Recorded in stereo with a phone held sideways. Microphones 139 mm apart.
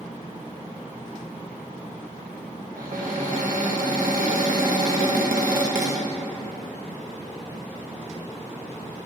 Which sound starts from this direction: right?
A cupboard door, at 2.8 s.